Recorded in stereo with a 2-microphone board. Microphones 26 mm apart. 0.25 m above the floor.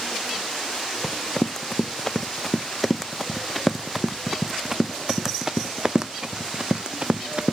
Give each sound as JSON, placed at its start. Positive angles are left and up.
{"t": 1.0, "sound": "running footsteps", "side_deg": 20}